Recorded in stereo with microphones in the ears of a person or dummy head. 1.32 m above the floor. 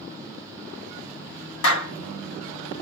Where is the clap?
65° left (ahead or behind), 1.3 m.